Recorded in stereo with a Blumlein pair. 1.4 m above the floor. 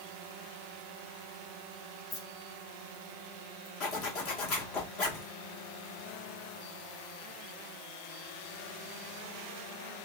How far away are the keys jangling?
About 1.1 m.